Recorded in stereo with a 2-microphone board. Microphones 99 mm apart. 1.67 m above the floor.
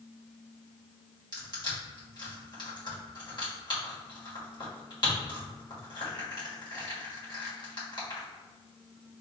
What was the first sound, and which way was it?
Crushing, 50° left (ahead or behind).